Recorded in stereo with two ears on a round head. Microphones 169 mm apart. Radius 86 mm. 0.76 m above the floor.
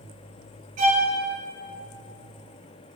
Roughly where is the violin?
Right.